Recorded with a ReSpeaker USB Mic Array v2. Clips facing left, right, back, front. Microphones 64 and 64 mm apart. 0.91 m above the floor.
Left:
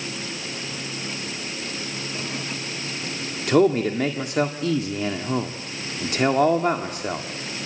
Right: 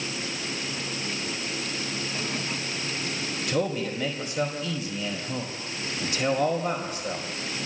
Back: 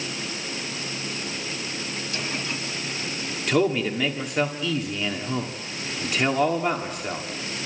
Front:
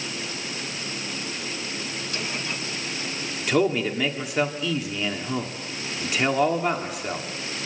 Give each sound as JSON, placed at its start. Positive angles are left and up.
{"t": 3.5, "sound": "a man speaking", "azimuth_deg": 85, "distance_m": 1.8}